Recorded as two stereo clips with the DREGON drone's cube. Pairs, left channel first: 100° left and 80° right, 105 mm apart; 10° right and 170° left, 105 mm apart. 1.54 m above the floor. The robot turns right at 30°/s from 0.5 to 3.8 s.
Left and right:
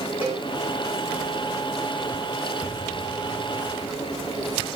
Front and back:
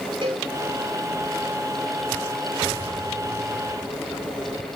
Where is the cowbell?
155° right, 5 m.